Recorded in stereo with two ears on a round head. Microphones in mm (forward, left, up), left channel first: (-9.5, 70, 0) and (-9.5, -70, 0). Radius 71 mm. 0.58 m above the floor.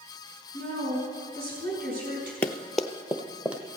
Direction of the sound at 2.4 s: 10° left (ahead or behind).